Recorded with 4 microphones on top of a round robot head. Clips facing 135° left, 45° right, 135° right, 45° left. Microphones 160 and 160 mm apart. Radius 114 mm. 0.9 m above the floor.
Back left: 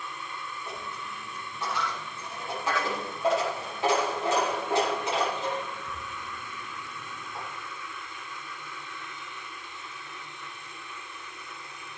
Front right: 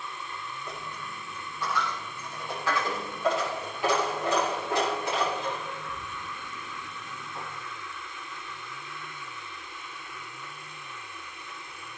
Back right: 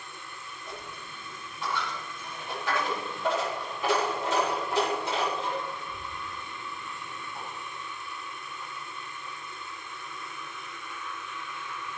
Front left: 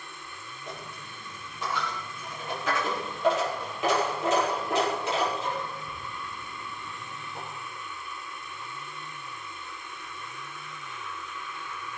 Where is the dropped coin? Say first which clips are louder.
Back left 1 dB, front left 2 dB; 65° left, 7.5 m.